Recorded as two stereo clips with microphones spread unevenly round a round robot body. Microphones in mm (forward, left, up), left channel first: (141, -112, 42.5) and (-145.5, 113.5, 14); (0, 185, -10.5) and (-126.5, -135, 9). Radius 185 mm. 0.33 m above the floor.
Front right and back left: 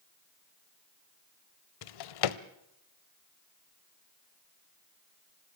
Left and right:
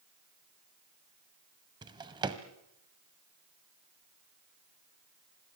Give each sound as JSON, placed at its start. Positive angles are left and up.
{"t": 1.8, "sound": "a drawer", "azimuth_deg": -35, "distance_m": 1.0}